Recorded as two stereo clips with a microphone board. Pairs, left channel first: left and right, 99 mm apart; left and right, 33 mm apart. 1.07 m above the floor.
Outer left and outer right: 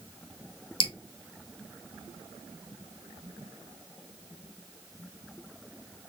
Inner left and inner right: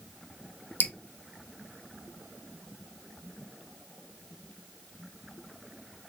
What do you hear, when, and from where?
0.8 s dripping: 60° left (ahead or behind), 0.5 m